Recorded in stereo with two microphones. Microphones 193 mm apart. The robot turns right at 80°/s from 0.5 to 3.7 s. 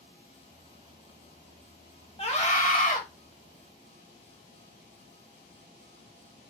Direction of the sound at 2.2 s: 45° left.